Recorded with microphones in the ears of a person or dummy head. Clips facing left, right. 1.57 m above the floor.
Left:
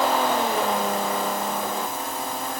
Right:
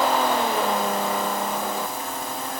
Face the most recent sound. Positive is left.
No sound to turn to.